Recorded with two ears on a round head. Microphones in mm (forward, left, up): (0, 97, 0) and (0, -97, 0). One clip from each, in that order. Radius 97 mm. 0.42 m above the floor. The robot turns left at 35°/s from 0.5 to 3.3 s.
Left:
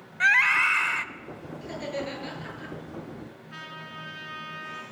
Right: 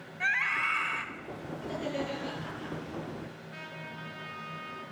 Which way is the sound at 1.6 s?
135° left.